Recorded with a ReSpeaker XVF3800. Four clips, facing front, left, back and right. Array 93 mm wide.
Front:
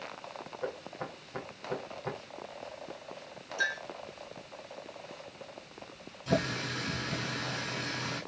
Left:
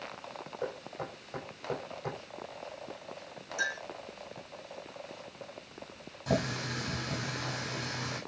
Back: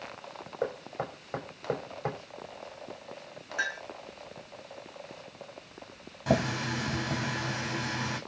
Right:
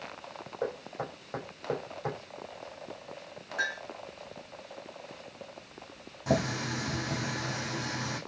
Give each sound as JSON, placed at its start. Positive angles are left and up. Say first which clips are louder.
{"t": 0.6, "sound": "knocking", "louder": "right 4 dB, back 5 dB", "azimuth_deg": -160, "distance_m": 8.5}
{"t": 3.6, "sound": "a clink", "louder": "right 1 dB, even", "azimuth_deg": -145, "distance_m": 9.5}
{"t": 6.3, "sound": "a running tap", "louder": "right 3 dB, back 3 dB", "azimuth_deg": -160, "distance_m": 8.5}